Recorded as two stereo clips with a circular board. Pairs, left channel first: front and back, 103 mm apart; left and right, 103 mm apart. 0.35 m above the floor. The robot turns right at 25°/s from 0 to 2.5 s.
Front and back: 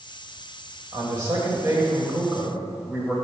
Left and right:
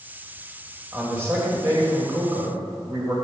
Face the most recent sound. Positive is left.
turn(degrees=-110)